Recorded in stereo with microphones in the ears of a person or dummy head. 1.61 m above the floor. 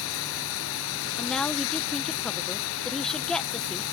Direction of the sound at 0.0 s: 70° left (ahead or behind).